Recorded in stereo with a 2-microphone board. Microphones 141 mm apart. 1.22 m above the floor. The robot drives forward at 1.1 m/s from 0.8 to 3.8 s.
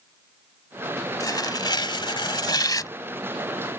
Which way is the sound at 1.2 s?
30° left (ahead or behind).